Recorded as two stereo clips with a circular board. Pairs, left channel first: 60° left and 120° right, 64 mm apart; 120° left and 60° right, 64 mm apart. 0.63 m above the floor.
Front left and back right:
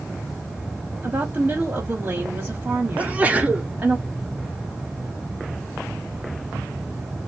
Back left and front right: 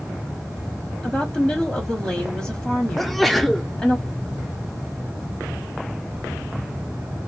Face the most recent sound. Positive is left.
turn(degrees=-155)